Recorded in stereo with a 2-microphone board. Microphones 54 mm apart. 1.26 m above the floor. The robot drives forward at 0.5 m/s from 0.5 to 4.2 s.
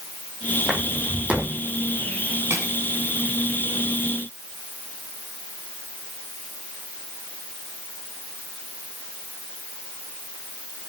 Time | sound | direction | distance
0.7 | footsteps | 15° right (ahead or behind) | 3 m
2.5 | crushing | 55° right (ahead or behind) | 5 m